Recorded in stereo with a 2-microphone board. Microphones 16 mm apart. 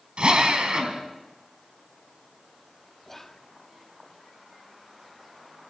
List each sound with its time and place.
0.2 s a drill: 55° right (ahead or behind), 4 m
3.0 s whispering: 20° left (ahead or behind), 0.6 m